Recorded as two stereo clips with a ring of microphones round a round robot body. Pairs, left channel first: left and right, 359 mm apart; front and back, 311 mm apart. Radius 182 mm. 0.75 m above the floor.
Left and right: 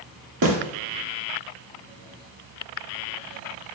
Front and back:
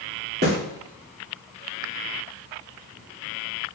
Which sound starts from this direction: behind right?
A snare drum, at 0.4 s.